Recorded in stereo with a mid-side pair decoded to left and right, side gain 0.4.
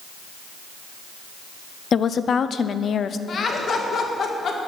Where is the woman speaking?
55° left, 0.6 m.